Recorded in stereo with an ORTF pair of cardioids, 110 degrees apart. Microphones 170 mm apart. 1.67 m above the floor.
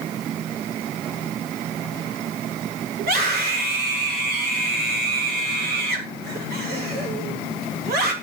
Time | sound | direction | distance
3.0 | a scream | 65° right | 7.5 m